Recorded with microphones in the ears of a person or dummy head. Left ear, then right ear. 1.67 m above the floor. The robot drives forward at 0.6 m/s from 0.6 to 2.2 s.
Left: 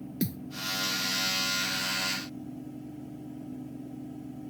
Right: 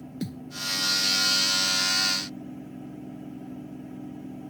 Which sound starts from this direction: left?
A thud, at 0.2 s.